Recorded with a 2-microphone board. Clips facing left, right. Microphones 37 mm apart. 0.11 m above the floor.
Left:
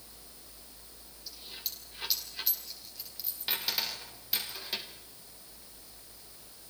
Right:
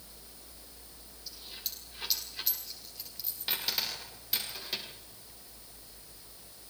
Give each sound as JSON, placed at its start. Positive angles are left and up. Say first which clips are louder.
{"t": 1.3, "sound": "a dropped coin", "louder": "even", "side_deg": 0, "distance_m": 5.0}